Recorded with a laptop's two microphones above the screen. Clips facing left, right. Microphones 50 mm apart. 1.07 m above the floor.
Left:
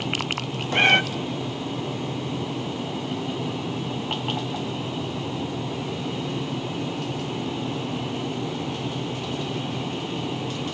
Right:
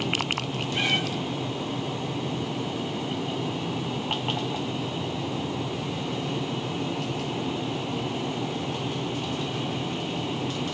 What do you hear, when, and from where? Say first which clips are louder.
0.7 s a cat meowing: left 9 dB; 50° left (ahead or behind), 0.8 m